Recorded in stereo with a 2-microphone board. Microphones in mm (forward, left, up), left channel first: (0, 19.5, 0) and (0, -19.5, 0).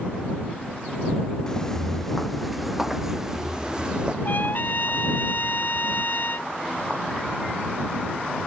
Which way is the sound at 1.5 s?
15° left (ahead or behind).